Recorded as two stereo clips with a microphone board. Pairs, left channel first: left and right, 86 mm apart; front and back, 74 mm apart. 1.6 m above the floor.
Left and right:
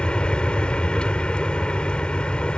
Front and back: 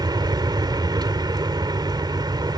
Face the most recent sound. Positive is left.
turn(degrees=170)